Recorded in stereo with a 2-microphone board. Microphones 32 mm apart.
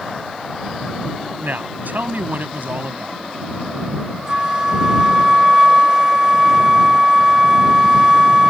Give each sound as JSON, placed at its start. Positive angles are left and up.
{"t": 1.4, "sound": "a woman speaking", "side_deg": -75}
{"t": 4.3, "sound": "a flute", "side_deg": -20}